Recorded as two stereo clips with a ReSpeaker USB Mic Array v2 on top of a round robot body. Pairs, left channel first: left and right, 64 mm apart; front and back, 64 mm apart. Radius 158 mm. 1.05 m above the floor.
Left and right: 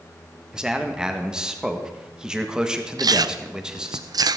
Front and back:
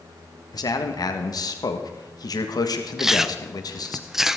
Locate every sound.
0.5 s a man speaking: 10° right, 1.7 m
3.0 s chewing: 95° right, 0.5 m